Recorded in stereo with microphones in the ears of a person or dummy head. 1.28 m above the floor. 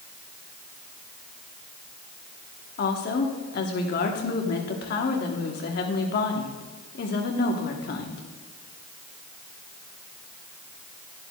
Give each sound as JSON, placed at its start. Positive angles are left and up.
{"t": 2.8, "sound": "a woman speaking", "side_deg": 60, "distance_m": 1.1}